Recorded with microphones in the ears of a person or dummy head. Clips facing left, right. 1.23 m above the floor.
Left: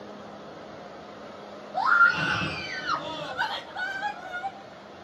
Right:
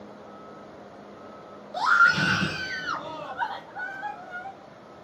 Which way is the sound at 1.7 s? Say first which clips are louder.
Even; 35° right (ahead or behind).